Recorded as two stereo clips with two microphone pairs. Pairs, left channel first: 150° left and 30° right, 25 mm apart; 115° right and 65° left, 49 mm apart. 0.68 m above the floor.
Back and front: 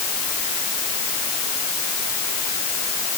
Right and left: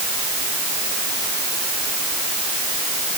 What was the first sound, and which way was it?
Only background noise.